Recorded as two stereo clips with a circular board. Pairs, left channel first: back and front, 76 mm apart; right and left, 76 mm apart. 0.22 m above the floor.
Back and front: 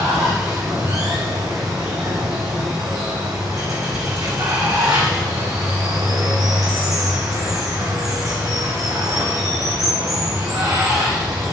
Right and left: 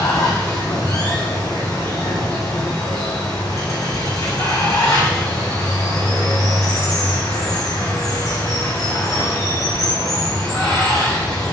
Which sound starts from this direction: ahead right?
Running water, at 0.0 s.